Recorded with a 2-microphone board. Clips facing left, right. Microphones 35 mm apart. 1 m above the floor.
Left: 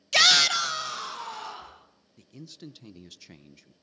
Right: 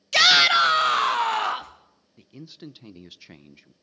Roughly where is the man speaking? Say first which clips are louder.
Right 3 dB; centre.